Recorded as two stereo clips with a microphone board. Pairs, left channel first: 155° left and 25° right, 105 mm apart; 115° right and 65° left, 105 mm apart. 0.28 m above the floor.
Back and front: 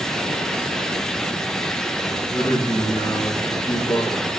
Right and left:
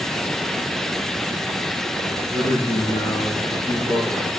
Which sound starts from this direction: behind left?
A man speaking, at 2.0 s.